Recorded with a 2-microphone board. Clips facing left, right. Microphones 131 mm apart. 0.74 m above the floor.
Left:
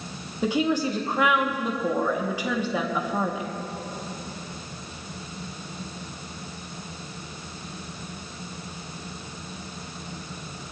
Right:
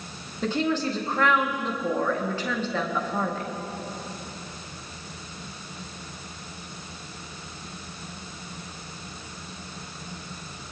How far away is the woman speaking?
About 1.4 m.